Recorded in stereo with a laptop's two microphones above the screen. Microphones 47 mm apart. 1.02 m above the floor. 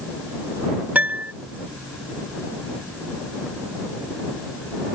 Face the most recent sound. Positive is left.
turn(degrees=-40)  # may be behind; listen again after turning